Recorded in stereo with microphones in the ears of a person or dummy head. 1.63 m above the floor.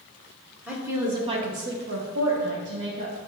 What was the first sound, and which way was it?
A woman speaking, 10° right (ahead or behind).